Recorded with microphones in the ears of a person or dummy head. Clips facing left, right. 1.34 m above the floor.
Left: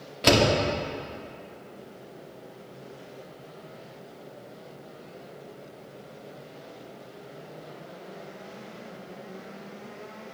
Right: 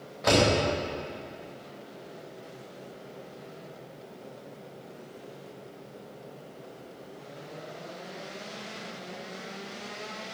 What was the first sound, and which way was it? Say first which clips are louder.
A door slam: left 2 dB; 40° left (ahead or behind).